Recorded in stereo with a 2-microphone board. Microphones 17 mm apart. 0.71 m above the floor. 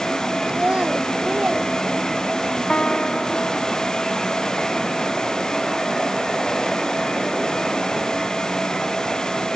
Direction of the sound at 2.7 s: 65° left (ahead or behind).